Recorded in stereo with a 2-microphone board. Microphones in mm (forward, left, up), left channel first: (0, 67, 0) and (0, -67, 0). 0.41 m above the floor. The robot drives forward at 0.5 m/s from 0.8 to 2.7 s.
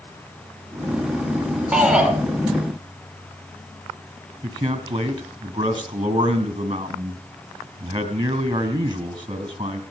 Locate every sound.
1.7 s a shout: 10° right (ahead or behind), 5 m
4.4 s a man speaking: 40° right (ahead or behind), 2.5 m